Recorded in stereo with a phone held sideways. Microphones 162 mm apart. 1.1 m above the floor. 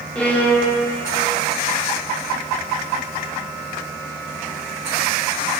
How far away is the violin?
About 2.5 m.